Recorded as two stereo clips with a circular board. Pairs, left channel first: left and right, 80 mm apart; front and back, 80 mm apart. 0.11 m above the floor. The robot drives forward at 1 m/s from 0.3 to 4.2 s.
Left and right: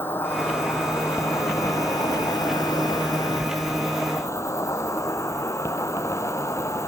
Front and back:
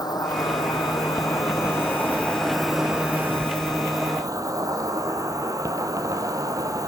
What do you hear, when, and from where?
0.0 s an insect: 30° left, 3 m; by 6.9 s 140° left, 2 m